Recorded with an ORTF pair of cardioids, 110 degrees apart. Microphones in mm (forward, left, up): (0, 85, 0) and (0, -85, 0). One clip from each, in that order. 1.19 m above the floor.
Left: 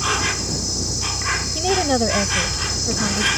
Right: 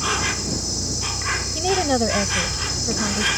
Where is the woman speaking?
Straight ahead.